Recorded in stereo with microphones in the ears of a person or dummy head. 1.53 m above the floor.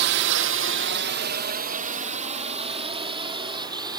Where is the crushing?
No crushing in this recording.